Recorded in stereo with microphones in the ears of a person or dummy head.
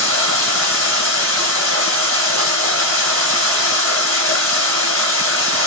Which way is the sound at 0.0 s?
15° right (ahead or behind).